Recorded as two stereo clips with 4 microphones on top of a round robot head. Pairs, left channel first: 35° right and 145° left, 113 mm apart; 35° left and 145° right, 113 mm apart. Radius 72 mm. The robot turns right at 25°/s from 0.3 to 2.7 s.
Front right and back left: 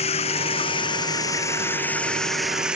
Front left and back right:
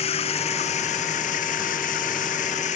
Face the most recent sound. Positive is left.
turn(degrees=60)